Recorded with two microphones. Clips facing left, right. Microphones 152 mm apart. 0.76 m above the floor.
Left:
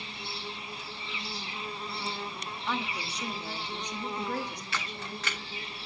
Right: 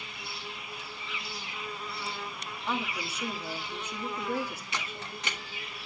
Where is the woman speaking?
5° right (ahead or behind), 1.7 m.